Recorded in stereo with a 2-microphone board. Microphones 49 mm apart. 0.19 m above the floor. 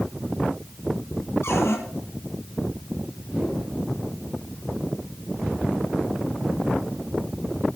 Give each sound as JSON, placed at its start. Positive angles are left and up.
{"t": 1.4, "sound": "a cupboard door", "side_deg": 65, "distance_m": 4.5}
{"t": 3.3, "sound": "a whoosh", "side_deg": -20, "distance_m": 7.0}